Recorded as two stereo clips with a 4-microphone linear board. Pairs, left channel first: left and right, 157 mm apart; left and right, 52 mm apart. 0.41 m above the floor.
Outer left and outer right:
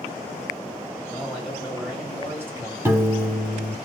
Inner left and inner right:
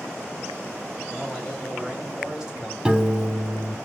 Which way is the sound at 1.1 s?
5° left (ahead or behind).